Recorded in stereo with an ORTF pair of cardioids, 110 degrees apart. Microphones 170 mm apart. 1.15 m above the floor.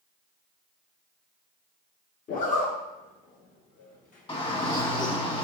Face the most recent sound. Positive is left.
turn(degrees=30)